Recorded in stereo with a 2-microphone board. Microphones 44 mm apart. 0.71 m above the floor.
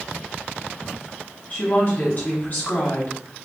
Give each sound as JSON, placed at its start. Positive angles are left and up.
{"t": 1.5, "sound": "a woman speaking", "side_deg": 40, "distance_m": 1.2}